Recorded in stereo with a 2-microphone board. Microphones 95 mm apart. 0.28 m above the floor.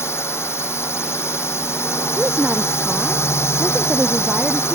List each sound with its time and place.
0.0 s a drone: 30° left (ahead or behind)
2.2 s a woman speaking: 10° right (ahead or behind)